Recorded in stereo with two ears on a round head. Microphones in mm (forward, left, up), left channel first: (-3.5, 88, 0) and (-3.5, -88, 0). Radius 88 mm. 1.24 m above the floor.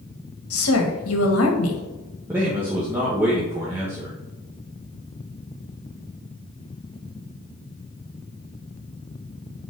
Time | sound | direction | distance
0.5 | a woman speaking | 85° left | 1.6 m
2.3 | a man speaking | 10° right (ahead or behind) | 1.4 m